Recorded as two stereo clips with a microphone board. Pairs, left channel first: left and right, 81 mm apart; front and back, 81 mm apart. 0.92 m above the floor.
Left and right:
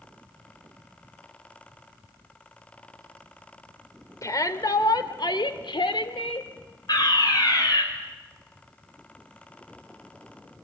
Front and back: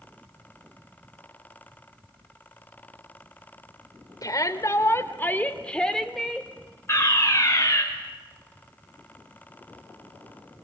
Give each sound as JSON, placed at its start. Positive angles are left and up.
{"t": 4.2, "sound": "a shout", "azimuth_deg": 40, "distance_m": 3.0}
{"t": 6.9, "sound": "a fire alarm", "azimuth_deg": 55, "distance_m": 6.0}